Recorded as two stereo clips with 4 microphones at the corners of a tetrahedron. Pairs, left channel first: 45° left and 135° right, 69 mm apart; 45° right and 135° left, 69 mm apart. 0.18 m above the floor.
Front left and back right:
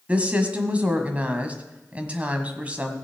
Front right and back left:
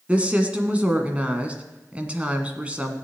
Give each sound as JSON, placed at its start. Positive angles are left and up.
{"t": 0.1, "sound": "a woman speaking", "azimuth_deg": 180, "distance_m": 1.6}